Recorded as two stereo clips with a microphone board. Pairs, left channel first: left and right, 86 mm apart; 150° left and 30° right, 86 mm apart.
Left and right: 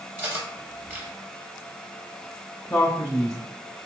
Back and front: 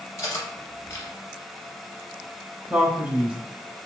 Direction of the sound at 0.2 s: 155° right.